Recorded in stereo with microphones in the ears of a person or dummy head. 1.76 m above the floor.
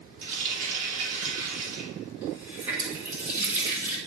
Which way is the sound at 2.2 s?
10° right (ahead or behind).